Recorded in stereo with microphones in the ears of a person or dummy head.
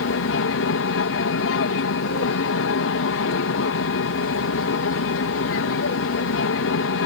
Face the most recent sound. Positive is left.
turn(degrees=65)  # may be behind; listen again after turning